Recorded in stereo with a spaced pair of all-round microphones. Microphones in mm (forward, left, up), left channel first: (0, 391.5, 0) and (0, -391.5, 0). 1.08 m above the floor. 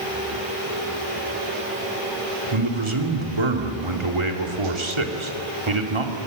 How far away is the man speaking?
About 2.5 m.